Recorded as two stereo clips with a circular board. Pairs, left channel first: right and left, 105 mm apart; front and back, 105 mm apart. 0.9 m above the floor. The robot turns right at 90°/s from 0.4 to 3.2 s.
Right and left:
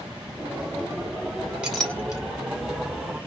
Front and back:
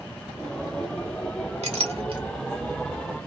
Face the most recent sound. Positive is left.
turn(degrees=-50)